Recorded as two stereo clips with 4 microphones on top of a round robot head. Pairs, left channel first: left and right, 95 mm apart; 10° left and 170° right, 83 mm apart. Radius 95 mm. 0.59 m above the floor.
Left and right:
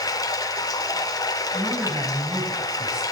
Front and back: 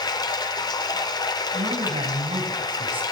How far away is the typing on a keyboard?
No typing on a keyboard in this recording.